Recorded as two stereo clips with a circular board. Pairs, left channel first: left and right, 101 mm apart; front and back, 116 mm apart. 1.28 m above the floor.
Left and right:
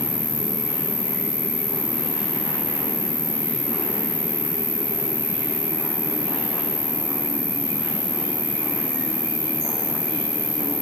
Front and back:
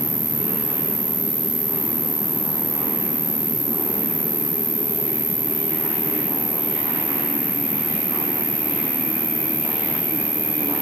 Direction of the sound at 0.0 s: 120° left.